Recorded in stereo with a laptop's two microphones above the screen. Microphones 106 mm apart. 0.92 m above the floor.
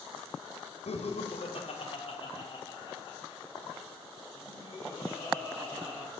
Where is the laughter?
70° left (ahead or behind), 1.5 m; by 6.0 s 25° left (ahead or behind), 5 m.